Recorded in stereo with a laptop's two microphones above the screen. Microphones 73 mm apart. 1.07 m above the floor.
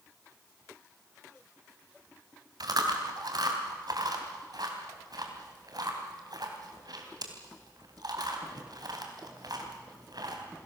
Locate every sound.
2.6 s chewing: 65° right (ahead or behind), 3 m